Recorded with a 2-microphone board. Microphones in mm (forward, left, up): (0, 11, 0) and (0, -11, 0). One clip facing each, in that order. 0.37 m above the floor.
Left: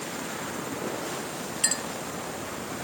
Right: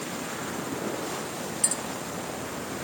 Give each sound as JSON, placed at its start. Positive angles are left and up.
{"t": 1.6, "sound": "a clink", "side_deg": 40}